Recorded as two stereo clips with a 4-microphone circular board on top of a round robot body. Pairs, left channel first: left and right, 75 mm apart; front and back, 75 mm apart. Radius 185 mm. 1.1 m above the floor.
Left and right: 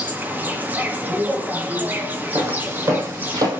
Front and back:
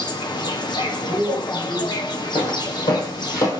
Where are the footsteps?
30° right, 3.5 m; by 3.5 s 55° right, 2.5 m.